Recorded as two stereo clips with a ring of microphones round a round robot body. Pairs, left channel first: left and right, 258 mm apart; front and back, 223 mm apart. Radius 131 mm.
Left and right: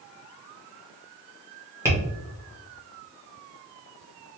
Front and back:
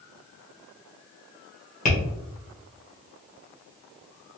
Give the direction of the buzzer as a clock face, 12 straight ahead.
No buzzer in this recording.